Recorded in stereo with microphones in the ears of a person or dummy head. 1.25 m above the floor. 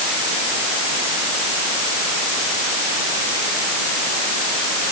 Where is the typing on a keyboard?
No typing on a keyboard in this recording.